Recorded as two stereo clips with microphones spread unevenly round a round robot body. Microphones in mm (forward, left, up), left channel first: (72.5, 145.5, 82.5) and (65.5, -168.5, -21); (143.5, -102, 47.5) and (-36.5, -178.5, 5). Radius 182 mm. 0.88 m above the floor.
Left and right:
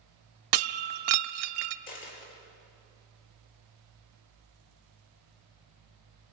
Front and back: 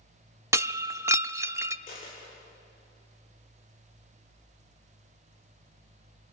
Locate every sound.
0.5 s breaking glass: 75° right, 0.7 m
1.9 s a dropped coin: 95° left, 5.5 m